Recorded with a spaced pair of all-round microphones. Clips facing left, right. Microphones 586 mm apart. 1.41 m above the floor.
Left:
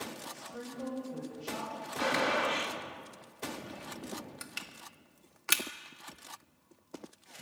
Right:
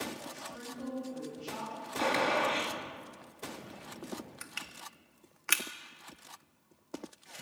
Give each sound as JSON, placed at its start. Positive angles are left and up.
{"t": 0.3, "sound": "a woman speaking", "side_deg": 70, "distance_m": 7.0}
{"t": 2.0, "sound": "a gunshot", "side_deg": 40, "distance_m": 2.5}
{"t": 4.4, "sound": "crushing", "side_deg": 60, "distance_m": 1.4}